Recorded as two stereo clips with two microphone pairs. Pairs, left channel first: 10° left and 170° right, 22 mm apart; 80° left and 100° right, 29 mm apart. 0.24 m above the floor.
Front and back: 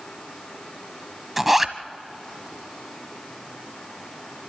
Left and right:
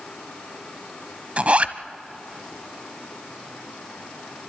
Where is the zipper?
95° right, 0.7 m.